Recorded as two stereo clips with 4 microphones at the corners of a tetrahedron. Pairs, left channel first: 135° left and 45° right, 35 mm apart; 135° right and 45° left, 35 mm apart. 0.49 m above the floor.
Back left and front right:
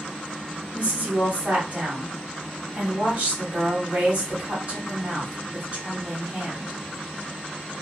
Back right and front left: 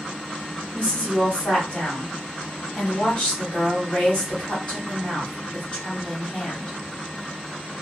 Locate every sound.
0.7 s a woman speaking: 90° right, 1.5 m